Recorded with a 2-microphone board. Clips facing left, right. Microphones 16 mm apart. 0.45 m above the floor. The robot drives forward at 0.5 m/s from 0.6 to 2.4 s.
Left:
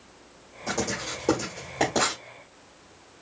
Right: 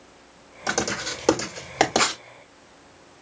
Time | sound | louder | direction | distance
0.7 | writing | right 4 dB | 50° right (ahead or behind) | 1.7 m